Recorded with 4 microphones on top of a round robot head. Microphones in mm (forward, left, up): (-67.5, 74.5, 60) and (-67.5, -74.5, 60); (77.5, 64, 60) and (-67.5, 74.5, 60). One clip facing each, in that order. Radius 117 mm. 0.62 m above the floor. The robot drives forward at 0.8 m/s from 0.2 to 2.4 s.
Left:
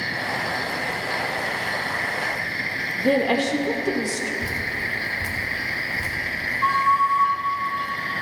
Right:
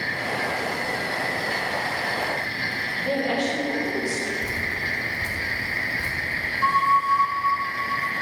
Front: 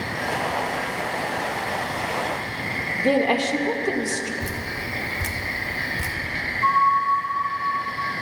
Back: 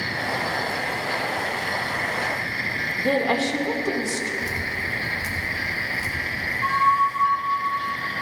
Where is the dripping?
15° left, 2.5 m.